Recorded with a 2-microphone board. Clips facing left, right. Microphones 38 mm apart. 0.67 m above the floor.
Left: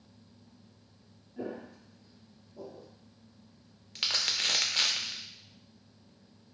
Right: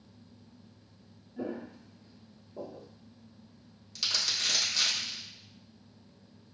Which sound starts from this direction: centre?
Footsteps, at 1.4 s.